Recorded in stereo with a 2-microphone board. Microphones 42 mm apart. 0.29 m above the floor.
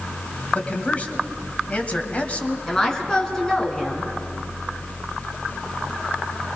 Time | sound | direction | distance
0.5 | a man speaking | 35° left (ahead or behind) | 1.8 m
2.7 | a woman speaking | 10° left (ahead or behind) | 3 m